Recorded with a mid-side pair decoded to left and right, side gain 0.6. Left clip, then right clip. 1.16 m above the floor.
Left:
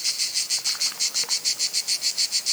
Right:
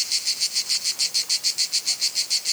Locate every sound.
Only background noise.